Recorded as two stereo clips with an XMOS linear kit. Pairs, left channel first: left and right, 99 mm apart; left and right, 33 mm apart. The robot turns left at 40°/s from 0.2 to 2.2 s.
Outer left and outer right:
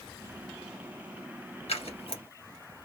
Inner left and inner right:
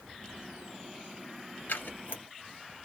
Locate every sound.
1.7 s scissors: 75° left (ahead or behind), 2 m; by 2.2 s 60° left (ahead or behind), 2 m